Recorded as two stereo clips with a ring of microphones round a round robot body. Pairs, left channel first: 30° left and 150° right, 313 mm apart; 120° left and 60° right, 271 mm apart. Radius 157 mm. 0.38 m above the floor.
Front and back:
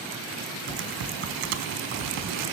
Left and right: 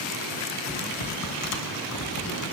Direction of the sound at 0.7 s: 160° left.